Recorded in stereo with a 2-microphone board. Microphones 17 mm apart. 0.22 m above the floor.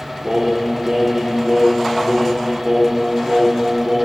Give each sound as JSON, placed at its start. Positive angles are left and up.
{"t": 0.2, "sound": "singing", "side_deg": -65, "distance_m": 7.5}